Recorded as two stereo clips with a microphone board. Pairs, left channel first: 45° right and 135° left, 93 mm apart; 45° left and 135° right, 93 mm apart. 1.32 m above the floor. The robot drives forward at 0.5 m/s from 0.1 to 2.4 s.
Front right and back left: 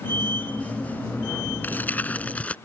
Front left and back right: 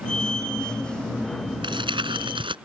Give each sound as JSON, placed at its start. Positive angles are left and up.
{"t": 1.6, "sound": "crumpling", "azimuth_deg": -115}